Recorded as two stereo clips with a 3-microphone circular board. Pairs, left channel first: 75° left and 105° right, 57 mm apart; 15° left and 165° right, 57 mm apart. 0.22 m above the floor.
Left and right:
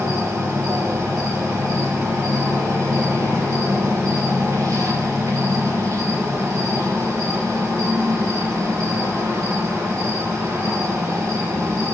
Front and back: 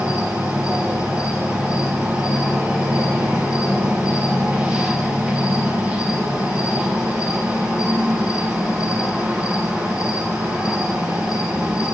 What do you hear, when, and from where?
0.0 s an insect: 85° right, 5 m